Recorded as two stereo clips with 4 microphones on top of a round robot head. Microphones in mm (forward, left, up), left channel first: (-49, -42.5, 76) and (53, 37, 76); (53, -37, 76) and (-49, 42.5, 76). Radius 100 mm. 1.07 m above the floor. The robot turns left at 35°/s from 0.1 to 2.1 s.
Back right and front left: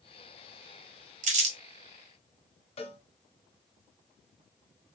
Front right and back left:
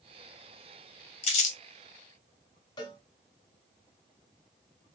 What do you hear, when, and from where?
1.2 s crumpling: 10° left, 1.1 m; by 1.6 s 5° right, 1.1 m
2.8 s a cowbell: 95° right, 1.4 m